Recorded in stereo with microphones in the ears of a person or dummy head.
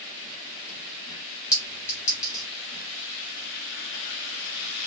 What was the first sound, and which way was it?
A clink, 15° left (ahead or behind).